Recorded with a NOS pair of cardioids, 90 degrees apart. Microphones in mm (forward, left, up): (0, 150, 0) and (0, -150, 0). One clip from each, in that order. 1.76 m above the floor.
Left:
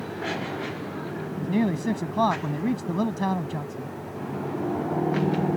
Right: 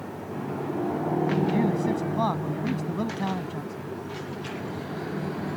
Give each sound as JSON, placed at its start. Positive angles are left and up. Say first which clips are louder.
{"t": 1.4, "sound": "a man speaking", "louder": "right 2 dB", "azimuth_deg": 30}